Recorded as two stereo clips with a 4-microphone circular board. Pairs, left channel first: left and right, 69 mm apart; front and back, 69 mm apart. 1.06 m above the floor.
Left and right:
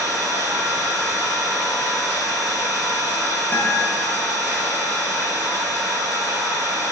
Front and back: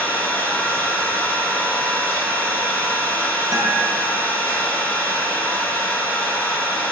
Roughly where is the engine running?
Ahead right.